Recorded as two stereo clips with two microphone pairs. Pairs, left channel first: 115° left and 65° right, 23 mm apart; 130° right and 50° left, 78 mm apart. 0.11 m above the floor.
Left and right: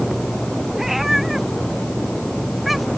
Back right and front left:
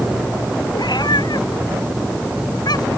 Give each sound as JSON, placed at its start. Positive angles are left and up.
{"t": 0.7, "sound": "a cat meowing", "azimuth_deg": -145}